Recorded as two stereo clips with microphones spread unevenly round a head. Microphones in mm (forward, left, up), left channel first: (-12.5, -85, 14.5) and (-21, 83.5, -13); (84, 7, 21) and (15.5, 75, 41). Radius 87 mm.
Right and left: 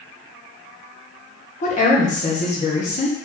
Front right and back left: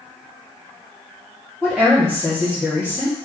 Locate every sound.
1.6 s a woman speaking: 135° right, 1.5 m